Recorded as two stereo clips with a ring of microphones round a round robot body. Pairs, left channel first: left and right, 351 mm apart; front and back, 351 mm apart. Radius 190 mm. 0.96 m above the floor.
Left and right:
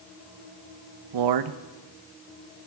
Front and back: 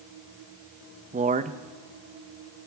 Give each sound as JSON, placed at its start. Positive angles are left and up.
{"t": 1.1, "sound": "a man speaking", "azimuth_deg": -110, "distance_m": 0.6}